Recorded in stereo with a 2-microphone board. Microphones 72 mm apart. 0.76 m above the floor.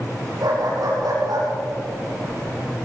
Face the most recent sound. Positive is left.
turn(degrees=-75)  # may be behind; listen again after turning